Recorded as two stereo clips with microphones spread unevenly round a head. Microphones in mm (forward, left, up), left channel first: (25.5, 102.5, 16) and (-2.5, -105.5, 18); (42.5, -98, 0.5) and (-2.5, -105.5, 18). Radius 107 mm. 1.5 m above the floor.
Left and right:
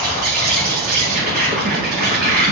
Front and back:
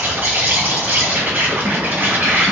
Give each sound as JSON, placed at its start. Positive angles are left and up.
{"t": 0.0, "sound": "an insect", "azimuth_deg": -125, "distance_m": 2.5}